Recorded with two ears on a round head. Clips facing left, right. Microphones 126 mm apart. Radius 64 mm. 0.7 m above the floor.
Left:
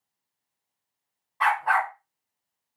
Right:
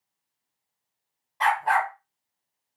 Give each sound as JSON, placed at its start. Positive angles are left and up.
{"t": 1.4, "sound": "a dog barking", "side_deg": -30, "distance_m": 1.0}